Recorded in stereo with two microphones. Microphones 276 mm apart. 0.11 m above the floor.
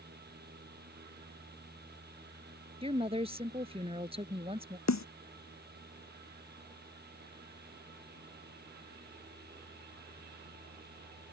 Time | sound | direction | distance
2.8 | a woman speaking | 20° right (ahead or behind) | ?
4.9 | a snare drum | 75° left (ahead or behind) | ?